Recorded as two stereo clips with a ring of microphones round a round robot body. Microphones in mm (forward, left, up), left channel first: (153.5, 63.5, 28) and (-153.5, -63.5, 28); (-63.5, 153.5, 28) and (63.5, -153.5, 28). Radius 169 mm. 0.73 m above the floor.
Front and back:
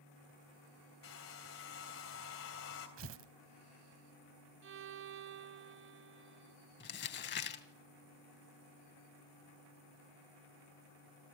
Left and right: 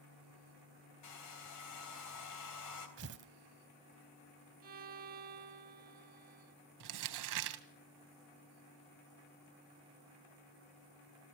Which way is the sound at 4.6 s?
120° right.